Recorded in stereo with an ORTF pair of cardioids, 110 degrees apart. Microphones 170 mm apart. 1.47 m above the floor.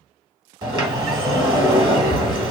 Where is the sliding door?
25° right, 1.0 m.